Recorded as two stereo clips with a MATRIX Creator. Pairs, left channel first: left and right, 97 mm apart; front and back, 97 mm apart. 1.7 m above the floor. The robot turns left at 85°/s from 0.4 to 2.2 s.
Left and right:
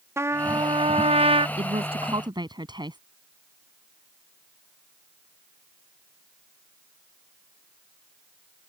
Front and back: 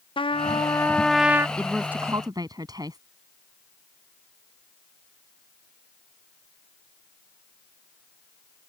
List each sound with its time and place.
0.2 s a trumpet: 25° right; by 1.5 s 115° right
1.6 s a woman speaking: 80° right; by 3.0 s 130° right